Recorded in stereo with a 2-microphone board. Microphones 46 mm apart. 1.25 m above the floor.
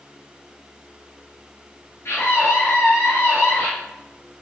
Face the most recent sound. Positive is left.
turn(degrees=50)  # may be behind; listen again after turning